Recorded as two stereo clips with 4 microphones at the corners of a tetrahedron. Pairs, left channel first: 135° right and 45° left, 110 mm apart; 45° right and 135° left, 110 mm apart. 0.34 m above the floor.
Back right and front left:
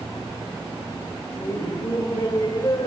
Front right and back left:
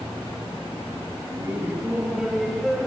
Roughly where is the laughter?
Behind.